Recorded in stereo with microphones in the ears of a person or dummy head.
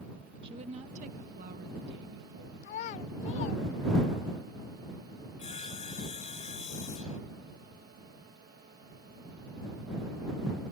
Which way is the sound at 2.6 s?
35° left (ahead or behind).